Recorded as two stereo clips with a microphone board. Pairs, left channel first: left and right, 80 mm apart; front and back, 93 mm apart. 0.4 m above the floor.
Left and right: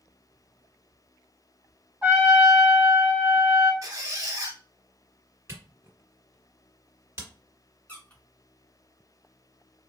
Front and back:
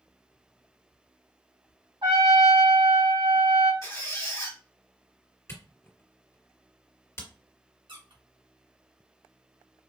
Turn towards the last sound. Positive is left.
turn(degrees=160)